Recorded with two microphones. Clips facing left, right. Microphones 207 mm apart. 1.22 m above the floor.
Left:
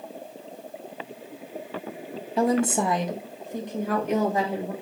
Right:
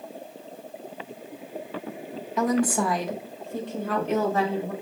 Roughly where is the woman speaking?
Left.